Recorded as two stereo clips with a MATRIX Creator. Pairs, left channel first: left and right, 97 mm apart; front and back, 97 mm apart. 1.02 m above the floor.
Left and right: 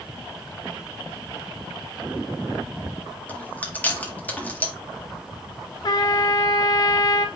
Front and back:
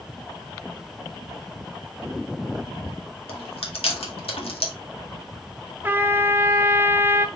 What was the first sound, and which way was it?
Chewing, 15° left.